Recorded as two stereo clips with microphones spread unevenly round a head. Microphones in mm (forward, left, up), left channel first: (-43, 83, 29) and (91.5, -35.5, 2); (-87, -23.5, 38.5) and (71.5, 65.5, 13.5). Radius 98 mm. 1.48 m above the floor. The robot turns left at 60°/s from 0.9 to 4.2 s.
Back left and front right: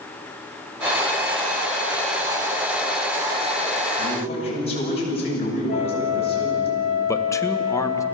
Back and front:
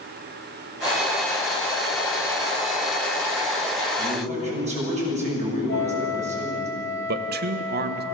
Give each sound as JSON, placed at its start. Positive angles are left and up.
{"t": 4.0, "sound": "a man speaking", "azimuth_deg": 95, "distance_m": 9.5}
{"t": 5.7, "sound": "a flute", "azimuth_deg": -175, "distance_m": 2.5}
{"t": 7.1, "sound": "a man speaking", "azimuth_deg": 65, "distance_m": 1.6}